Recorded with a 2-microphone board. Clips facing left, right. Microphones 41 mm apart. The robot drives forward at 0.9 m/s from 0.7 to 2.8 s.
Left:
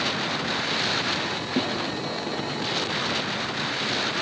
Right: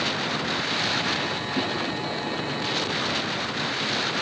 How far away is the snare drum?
About 4.5 m.